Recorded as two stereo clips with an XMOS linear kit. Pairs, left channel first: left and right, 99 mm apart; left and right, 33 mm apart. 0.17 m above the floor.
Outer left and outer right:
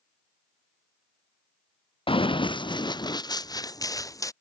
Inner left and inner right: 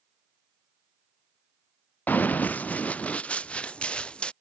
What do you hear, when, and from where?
2.1 s running footsteps: 70° left (ahead or behind); by 4.3 s 35° left (ahead or behind)